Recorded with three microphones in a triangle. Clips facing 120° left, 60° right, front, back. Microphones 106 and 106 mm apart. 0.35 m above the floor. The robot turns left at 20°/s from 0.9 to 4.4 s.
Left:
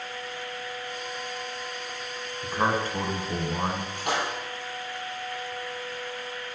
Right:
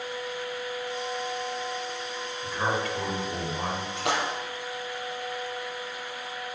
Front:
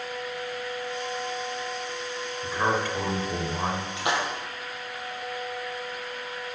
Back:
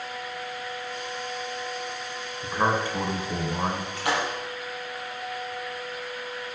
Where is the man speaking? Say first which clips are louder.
Left 3 dB, back 1 dB; 135° left, 1.5 m; by 3.9 s 105° left, 1.5 m.